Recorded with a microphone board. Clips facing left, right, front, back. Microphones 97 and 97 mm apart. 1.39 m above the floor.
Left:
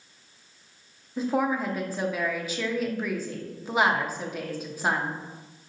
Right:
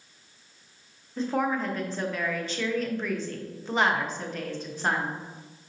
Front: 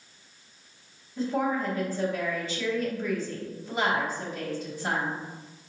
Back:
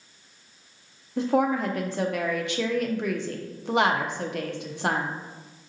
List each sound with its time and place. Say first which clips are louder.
1.2 s a woman speaking: left 1 dB, back 4 dB; 170° left, 0.6 m